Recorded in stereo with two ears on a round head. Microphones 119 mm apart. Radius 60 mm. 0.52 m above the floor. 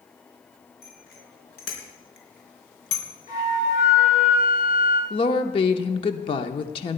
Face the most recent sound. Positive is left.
turn(degrees=40)  # may be behind; listen again after turning